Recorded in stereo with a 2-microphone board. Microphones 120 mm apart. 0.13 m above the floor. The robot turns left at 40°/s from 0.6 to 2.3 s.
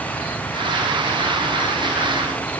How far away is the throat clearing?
I don't hear throat clearing.